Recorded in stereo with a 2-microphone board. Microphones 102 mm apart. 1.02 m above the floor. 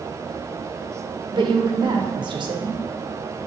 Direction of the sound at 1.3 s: 45° right (ahead or behind).